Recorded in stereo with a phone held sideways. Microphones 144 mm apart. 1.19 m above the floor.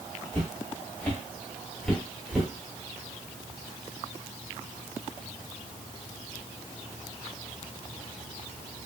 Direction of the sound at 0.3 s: 15° left (ahead or behind).